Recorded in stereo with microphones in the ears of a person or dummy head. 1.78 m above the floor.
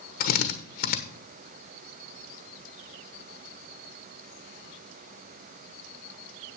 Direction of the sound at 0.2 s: 50° left (ahead or behind).